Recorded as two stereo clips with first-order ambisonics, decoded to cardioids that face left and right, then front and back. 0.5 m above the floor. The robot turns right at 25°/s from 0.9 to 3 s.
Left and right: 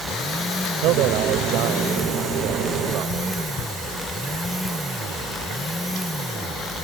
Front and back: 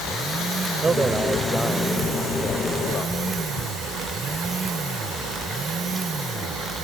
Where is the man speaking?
105° right; by 3.4 s 55° right.